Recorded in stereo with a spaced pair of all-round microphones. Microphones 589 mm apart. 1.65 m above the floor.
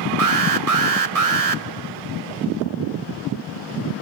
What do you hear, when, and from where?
0.2 s an alarm: 85° right, 1.1 m